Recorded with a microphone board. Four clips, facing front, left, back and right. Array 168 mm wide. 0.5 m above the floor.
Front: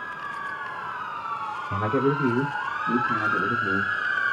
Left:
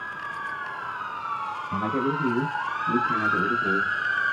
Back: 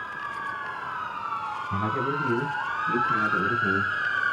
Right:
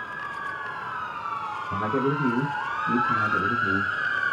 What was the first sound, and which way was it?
A man speaking, 10° right.